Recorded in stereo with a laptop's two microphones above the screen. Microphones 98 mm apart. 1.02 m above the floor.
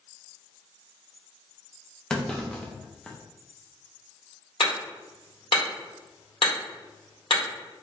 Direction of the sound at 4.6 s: 65° left (ahead or behind).